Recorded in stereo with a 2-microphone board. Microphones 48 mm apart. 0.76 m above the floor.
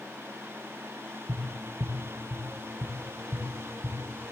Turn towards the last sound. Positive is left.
turn(degrees=-65)  # may be behind; listen again after turning